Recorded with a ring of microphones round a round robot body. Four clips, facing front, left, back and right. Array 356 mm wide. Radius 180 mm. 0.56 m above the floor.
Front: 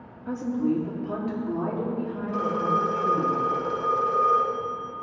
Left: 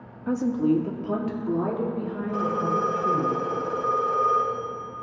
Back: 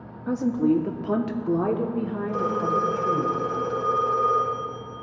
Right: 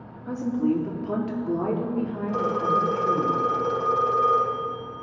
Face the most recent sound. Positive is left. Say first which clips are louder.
# right 1 dB, even
turn(degrees=-90)